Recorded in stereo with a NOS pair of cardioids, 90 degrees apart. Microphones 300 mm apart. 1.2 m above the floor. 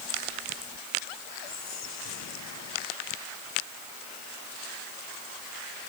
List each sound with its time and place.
1.4 s whispering: 60° left